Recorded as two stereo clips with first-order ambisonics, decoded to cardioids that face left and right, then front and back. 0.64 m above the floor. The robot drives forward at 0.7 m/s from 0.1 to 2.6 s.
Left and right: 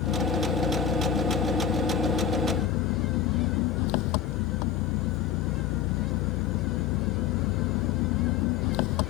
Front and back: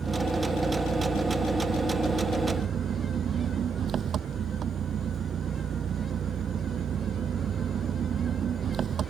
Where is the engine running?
105° left; by 9.1 s 115° left.